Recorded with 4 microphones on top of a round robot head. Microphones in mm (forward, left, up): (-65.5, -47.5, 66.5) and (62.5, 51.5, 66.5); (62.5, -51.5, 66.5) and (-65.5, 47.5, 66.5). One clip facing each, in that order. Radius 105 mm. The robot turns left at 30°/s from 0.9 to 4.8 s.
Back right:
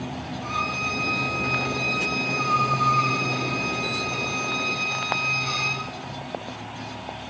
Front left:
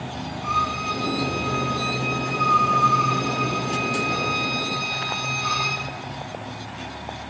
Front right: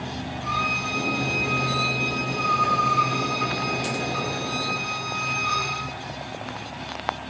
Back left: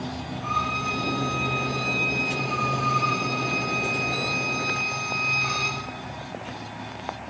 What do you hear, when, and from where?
0.4 s a violin: 95° right, 7.5 m; by 5.8 s 145° left, 7.5 m